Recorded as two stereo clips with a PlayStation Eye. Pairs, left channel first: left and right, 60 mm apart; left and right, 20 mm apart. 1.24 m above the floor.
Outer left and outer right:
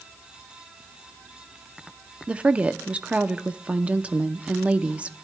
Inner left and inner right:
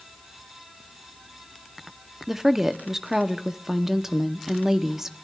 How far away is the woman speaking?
About 0.6 m.